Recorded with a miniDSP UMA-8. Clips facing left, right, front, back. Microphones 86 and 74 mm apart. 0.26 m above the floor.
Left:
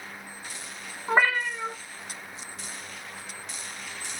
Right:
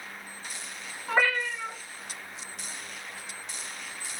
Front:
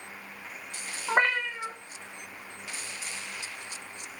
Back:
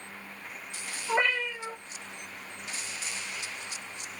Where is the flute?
I don't hear a flute.